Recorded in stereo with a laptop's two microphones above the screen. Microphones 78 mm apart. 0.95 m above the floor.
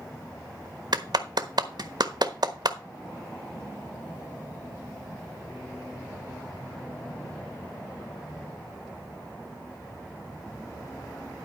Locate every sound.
0.9 s a clap: 65° right (ahead or behind), 1.2 m